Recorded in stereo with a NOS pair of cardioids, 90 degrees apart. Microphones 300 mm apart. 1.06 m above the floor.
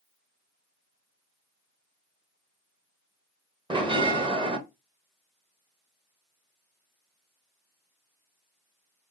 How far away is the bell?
About 0.9 m.